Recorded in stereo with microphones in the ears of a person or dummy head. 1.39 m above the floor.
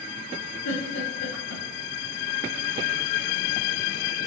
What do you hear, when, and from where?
0.7 s a giggle: 65° left (ahead or behind), 1.2 m